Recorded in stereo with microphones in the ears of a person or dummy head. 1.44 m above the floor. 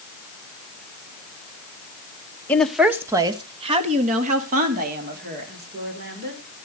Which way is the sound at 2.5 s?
10° left (ahead or behind).